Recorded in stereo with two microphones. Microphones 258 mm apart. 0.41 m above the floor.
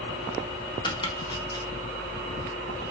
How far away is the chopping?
About 1.0 m.